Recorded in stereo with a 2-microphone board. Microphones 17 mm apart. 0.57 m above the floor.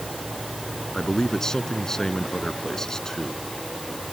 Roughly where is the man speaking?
Left.